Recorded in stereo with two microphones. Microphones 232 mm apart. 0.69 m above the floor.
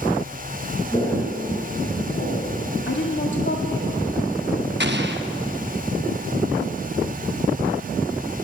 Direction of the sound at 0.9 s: 20° left (ahead or behind).